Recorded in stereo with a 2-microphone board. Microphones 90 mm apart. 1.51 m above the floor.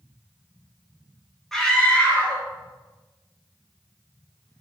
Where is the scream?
5° left (ahead or behind), 2.5 m; by 4.6 s 65° left (ahead or behind), 3 m.